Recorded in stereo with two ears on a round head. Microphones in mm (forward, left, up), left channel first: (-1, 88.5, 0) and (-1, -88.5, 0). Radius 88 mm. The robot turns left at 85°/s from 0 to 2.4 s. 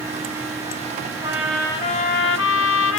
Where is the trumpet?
155° right, 0.9 m; by 3.0 s 105° left, 0.9 m.